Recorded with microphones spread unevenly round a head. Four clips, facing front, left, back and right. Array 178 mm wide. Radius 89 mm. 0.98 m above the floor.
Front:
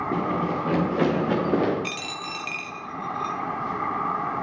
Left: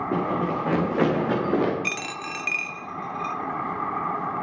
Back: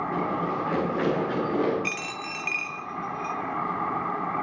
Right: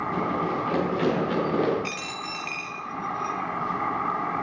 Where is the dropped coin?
75° left, 1.0 m.